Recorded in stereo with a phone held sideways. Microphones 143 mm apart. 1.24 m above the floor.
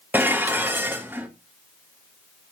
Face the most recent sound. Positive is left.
turn(degrees=-15)  # may be behind; listen again after turning